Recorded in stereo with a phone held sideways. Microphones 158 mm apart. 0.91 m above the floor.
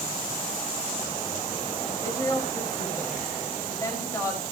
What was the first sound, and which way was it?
A woman speaking, 20° left (ahead or behind).